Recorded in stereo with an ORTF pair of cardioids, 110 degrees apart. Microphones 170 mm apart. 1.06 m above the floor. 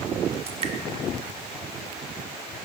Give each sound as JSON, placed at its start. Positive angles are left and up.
{"t": 0.5, "sound": "dripping", "azimuth_deg": -35, "distance_m": 1.3}